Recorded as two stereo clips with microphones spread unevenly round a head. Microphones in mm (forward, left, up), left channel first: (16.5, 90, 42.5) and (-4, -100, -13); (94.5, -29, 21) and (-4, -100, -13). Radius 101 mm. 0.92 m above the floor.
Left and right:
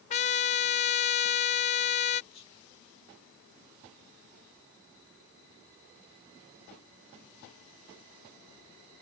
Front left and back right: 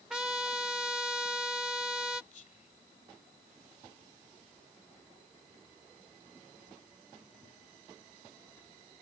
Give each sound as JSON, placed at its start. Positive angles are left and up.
{"t": 0.1, "sound": "a trumpet", "azimuth_deg": 115}
{"t": 2.3, "sound": "whispering", "azimuth_deg": 20}